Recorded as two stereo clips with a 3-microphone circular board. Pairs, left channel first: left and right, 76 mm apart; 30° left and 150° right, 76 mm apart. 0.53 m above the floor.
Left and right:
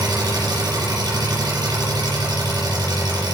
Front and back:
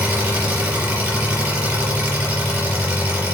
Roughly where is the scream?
I don't hear a scream.